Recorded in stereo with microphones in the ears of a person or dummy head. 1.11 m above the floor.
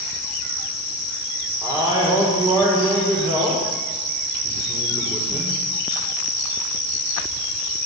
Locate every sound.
1.6 s a man speaking: 20° right (ahead or behind), 4.5 m